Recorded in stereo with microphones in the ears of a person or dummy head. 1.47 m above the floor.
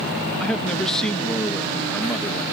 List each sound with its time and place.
0.4 s a man speaking: 5° left (ahead or behind)